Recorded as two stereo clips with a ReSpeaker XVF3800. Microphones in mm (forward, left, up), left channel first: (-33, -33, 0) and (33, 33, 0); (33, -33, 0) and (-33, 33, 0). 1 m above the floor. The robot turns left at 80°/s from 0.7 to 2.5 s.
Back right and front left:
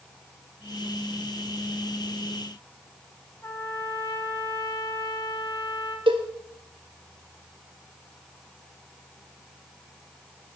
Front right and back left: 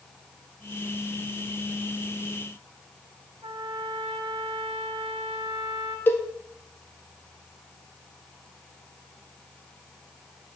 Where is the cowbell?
20° left, 1.1 m.